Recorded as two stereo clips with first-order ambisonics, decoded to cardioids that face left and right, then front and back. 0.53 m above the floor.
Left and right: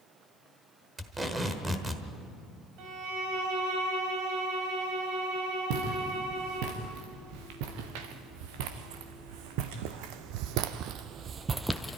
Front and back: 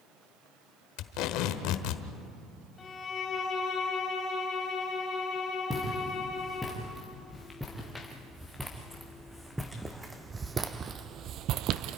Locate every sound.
1.0 s tape being pulled: 10° right, 1.3 m
2.8 s a violin: 70° right, 3 m
5.7 s footsteps: 80° right, 4.5 m; by 12.0 s 165° left, 0.8 m